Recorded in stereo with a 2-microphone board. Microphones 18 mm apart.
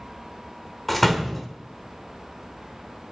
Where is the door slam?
5° left (ahead or behind), 1.1 m.